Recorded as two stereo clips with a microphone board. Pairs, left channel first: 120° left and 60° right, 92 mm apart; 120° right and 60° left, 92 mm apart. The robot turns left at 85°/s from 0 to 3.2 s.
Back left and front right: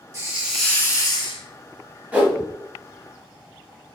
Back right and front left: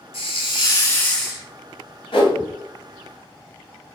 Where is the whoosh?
135° right, 1.1 m; by 2.4 s 155° right, 1.1 m.